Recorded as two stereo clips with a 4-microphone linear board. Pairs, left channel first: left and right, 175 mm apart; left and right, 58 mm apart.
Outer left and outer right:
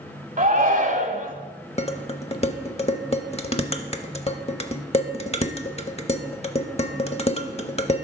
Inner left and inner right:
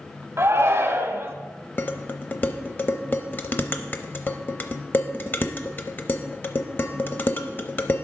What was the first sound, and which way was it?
A shout, 50° right (ahead or behind).